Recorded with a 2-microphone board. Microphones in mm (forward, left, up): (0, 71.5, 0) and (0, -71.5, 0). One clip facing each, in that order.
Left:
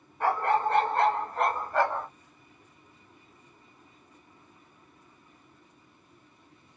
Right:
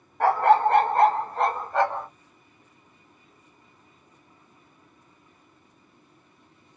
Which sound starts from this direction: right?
A dog barking, at 0.2 s.